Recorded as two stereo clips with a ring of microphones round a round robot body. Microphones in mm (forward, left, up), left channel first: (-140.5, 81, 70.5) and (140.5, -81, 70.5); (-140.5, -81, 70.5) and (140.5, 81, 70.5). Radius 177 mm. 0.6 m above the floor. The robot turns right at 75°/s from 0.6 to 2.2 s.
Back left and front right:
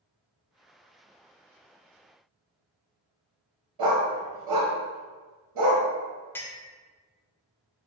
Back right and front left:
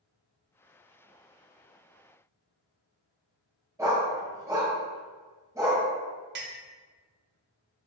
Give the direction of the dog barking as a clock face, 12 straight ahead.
2 o'clock.